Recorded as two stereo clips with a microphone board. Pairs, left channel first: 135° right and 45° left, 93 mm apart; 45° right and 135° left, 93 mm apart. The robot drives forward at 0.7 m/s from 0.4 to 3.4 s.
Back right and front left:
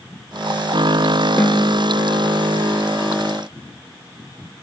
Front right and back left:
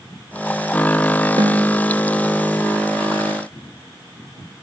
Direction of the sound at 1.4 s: 160° left.